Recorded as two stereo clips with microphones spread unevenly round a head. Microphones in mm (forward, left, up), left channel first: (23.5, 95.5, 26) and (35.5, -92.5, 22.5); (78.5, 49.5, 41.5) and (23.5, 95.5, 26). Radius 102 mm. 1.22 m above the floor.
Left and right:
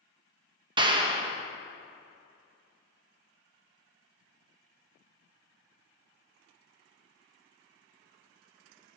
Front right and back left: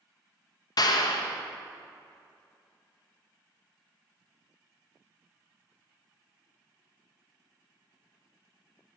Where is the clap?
20° right, 0.9 m.